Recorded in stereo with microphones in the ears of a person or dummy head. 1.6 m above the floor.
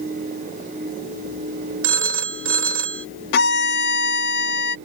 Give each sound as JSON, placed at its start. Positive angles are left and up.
{"t": 1.8, "sound": "a phone ringing", "side_deg": -80}
{"t": 3.3, "sound": "a violin", "side_deg": 70}